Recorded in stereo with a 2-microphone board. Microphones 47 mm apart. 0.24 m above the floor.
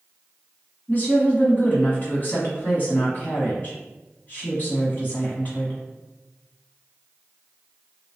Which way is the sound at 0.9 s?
40° left (ahead or behind).